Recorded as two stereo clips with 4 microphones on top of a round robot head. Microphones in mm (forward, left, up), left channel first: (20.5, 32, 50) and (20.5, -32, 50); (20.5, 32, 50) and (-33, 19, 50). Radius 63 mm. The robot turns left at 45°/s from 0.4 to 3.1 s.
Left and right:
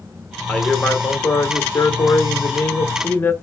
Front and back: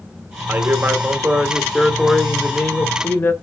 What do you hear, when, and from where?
0.5 s a man speaking: 165° left, 1.5 m; by 3.3 s 45° left, 1.5 m